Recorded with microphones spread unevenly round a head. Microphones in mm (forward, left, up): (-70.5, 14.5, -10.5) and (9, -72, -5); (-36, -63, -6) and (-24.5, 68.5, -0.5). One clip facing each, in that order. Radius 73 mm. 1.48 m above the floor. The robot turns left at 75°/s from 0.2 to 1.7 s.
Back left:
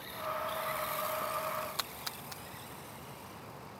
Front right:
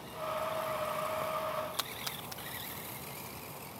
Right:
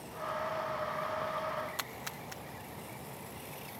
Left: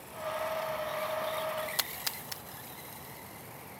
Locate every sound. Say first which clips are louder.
1.8 s a splash: front right 1 dB, even; 35° left